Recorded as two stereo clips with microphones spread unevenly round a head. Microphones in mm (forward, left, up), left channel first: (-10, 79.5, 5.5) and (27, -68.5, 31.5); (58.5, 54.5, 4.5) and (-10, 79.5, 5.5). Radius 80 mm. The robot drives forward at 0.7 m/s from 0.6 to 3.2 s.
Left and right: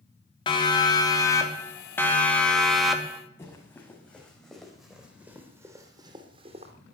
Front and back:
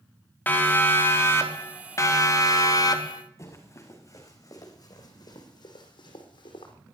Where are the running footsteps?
30° left, 6 m; by 6.7 s 35° right, 3.5 m.